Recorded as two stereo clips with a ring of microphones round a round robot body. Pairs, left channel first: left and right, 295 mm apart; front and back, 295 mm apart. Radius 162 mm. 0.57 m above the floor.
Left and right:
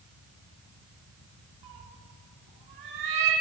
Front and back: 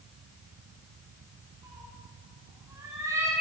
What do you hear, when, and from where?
1.6 s a cat meowing: 100° right, 2.5 m